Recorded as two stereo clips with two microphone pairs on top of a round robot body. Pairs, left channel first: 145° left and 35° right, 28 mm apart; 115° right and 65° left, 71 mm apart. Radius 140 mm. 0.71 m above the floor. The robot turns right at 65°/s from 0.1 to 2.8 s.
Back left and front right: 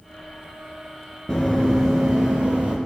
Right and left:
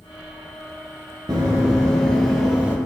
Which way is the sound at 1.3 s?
55° left.